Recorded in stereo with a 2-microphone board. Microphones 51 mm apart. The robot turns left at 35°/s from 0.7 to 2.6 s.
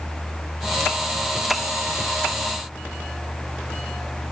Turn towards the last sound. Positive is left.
No sound to turn to.